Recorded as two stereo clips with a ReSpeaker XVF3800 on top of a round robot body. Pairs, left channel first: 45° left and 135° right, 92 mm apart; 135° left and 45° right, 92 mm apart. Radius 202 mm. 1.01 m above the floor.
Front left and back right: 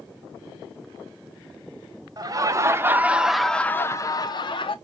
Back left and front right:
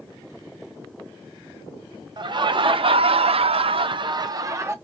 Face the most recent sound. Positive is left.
turn(degrees=15)